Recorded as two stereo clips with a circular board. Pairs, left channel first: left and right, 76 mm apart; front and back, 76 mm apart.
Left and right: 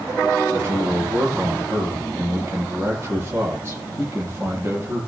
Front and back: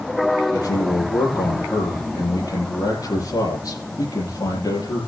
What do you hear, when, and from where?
0.5 s a man speaking: 30° right, 9 m